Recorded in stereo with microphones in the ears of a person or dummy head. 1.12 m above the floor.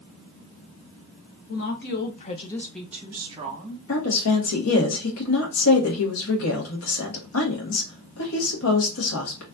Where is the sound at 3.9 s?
85° left, 1.8 m.